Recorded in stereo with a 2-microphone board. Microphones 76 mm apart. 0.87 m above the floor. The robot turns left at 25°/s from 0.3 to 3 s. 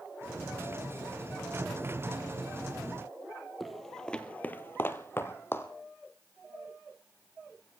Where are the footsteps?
Centre (ahead or behind), 1.2 m; by 5.7 s 30° left (ahead or behind), 1.6 m.